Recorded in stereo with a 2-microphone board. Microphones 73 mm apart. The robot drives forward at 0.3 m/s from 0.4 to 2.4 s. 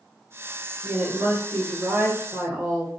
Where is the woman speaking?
20° right (ahead or behind), 1.9 m.